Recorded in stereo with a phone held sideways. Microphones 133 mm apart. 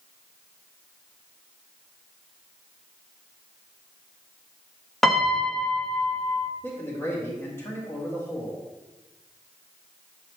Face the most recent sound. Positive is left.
turn(degrees=20)  # may be behind; listen again after turning